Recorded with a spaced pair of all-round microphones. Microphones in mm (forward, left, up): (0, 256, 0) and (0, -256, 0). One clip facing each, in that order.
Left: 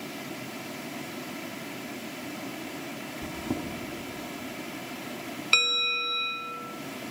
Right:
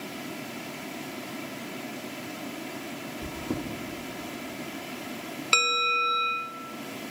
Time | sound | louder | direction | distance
3.2 | chewing | left 1 dB | 5° left (ahead or behind) | 1.3 m
5.5 | a bell | right 4 dB | 65° right (ahead or behind) | 0.7 m